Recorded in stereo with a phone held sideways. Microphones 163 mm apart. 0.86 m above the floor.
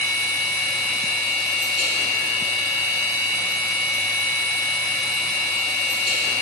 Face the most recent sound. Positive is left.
turn(degrees=-35)  # may be behind; listen again after turning